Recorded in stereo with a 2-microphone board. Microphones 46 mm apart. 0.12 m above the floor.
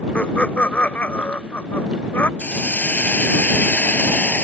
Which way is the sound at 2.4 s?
35° left (ahead or behind).